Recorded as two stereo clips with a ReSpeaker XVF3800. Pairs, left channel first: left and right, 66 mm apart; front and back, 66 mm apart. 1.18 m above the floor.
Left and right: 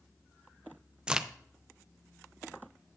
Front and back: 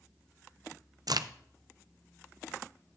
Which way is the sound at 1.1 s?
165° right.